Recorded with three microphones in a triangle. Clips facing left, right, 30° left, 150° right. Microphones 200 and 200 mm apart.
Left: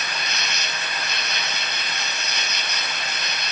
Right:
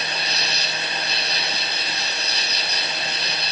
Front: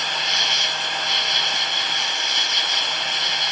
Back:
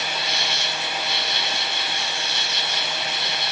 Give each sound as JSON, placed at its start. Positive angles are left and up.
{"t": 0.0, "sound": "an insect", "azimuth_deg": -40}